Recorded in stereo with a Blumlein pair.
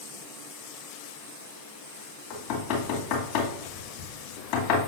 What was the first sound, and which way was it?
Knocking, 45° left.